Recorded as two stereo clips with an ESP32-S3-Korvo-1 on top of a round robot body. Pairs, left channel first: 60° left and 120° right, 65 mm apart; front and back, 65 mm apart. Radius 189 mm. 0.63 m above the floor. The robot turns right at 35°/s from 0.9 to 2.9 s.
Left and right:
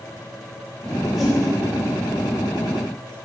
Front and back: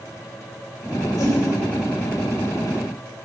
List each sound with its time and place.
1.2 s a whoosh: 35° right, 3.5 m; by 1.4 s 25° right, 3.5 m